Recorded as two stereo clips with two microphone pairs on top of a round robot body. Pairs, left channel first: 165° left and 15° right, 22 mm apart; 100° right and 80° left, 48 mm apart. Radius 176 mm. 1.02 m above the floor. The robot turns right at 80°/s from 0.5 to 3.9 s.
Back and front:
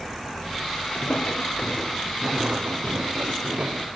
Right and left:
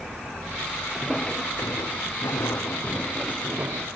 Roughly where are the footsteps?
Behind.